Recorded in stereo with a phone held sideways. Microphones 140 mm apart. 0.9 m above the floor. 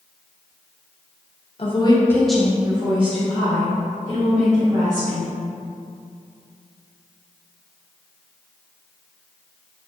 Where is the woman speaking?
45° left (ahead or behind), 0.6 m; by 5.3 s 65° right (ahead or behind), 2.0 m.